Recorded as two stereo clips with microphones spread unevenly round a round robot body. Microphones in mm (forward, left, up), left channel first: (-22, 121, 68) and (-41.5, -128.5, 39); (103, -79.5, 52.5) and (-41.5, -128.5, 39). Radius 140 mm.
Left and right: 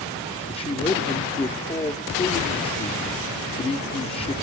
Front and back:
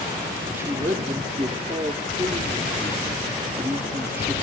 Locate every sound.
0.5 s a man speaking: 145° left, 0.8 m